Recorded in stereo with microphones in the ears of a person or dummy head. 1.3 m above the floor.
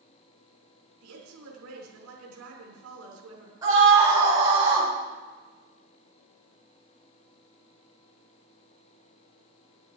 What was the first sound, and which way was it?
A woman speaking, 90° right.